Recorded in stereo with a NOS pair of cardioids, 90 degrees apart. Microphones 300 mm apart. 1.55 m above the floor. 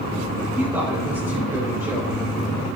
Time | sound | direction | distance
0.6 | a woman speaking | 10° right | 6 m